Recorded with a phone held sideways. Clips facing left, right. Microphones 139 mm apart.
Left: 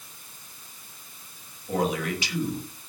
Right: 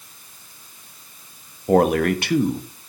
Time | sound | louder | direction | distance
1.7 | a man speaking | right 10 dB | 60° right (ahead or behind) | 1.2 m